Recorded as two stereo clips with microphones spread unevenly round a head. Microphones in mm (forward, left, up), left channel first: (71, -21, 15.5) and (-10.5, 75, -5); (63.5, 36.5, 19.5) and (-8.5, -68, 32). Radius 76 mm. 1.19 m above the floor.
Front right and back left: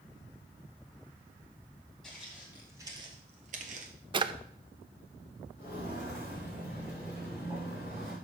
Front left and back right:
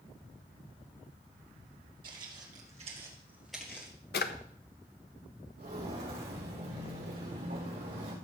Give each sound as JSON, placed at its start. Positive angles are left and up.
{"t": 2.0, "sound": "footsteps", "azimuth_deg": -135, "distance_m": 2.5}
{"t": 4.1, "sound": "a drawer", "azimuth_deg": 75, "distance_m": 0.6}
{"t": 5.6, "sound": "footsteps", "azimuth_deg": -160, "distance_m": 6.0}